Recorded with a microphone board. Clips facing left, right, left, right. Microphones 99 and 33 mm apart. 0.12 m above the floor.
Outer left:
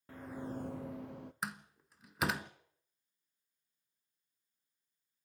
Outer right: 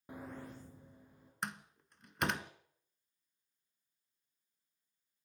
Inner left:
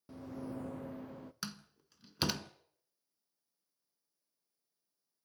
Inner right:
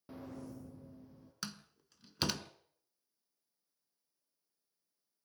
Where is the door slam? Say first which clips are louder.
Outer right 2 dB, inner right 2 dB; 5° left (ahead or behind), 0.8 m.